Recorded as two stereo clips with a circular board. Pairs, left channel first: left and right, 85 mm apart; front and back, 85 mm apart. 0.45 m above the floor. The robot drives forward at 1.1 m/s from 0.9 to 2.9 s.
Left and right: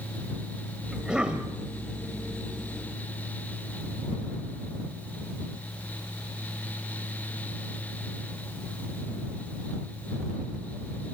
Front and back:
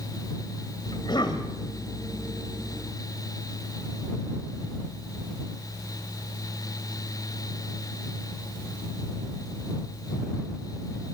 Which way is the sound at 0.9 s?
10° right.